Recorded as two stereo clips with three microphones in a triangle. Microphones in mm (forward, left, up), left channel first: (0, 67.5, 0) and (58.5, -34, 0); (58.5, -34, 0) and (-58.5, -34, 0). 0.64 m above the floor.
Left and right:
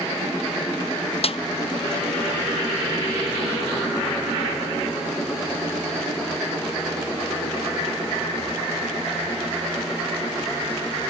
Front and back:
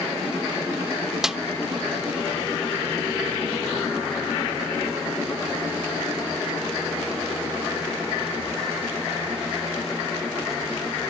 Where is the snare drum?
95° left, 0.6 m.